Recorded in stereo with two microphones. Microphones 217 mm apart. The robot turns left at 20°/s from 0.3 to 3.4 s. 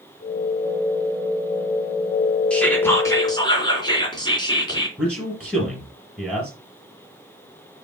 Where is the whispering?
5° left (ahead or behind), 2.5 m; by 4.9 s 20° left (ahead or behind), 2.5 m.